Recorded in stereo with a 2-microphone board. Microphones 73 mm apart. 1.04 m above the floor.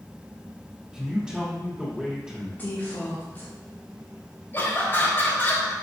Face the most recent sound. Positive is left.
turn(degrees=30)  # may be behind; listen again after turning